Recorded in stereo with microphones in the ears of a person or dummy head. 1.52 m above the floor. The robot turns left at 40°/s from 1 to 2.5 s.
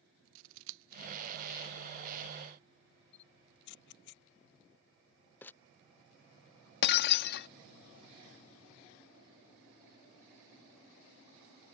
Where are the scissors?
70° right (ahead or behind).